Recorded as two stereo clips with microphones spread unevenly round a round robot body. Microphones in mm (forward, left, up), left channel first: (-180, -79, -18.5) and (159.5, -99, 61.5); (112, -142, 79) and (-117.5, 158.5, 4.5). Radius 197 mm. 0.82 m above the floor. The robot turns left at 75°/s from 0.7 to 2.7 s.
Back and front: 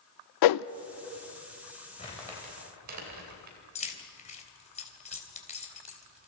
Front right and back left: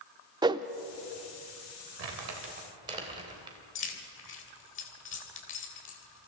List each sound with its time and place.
0.4 s a whoosh: 150° right, 0.6 m
2.0 s crumpling: 105° left, 3 m; by 3.6 s 50° left, 3 m
3.8 s keys jangling: 115° right, 3 m